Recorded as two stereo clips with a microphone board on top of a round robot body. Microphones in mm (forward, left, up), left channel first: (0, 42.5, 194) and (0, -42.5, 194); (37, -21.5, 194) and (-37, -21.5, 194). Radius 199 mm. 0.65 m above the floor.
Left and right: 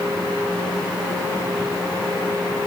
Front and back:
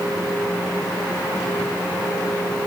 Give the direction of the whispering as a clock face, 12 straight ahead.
I don't hear whispering.